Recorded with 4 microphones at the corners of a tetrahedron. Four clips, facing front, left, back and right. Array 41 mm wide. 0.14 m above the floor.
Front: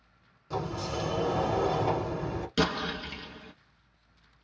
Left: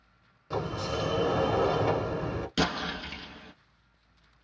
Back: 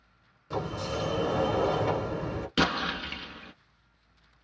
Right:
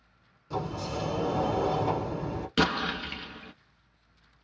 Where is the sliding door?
115° left, 1.0 m.